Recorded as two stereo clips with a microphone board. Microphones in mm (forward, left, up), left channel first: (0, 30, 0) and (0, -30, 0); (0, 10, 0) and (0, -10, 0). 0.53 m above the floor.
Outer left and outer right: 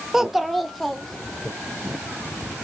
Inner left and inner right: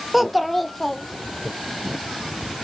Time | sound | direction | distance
0.1 | a child speaking | 10° right (ahead or behind) | 0.6 m